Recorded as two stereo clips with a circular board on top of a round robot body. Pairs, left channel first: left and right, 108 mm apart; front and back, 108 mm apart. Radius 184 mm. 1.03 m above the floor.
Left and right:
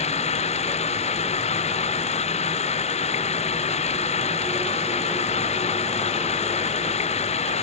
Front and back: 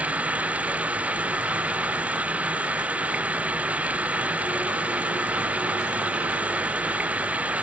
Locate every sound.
0.0 s running water: 105° left